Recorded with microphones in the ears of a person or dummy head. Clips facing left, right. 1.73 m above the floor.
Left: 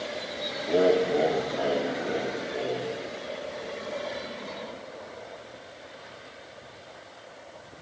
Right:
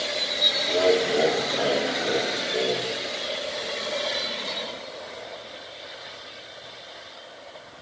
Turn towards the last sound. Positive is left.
turn(degrees=-35)  # may be behind; listen again after turning